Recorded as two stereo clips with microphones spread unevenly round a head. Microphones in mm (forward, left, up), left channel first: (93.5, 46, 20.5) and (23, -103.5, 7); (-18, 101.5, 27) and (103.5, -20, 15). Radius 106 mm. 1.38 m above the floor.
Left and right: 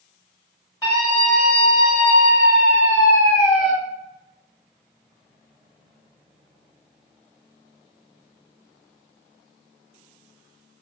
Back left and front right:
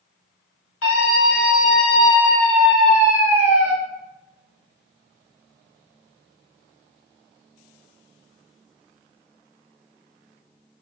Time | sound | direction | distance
0.8 | a scream | 140° left | 1.4 m